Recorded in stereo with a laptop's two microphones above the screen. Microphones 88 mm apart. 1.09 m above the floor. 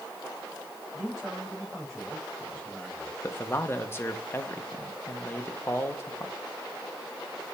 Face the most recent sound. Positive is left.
turn(degrees=25)  # may be behind; listen again after turning